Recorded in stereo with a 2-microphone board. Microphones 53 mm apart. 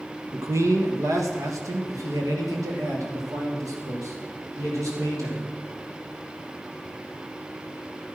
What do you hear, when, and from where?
0.3 s a man speaking: 60° right (ahead or behind), 1.3 m; by 5.5 s 85° right, 4.5 m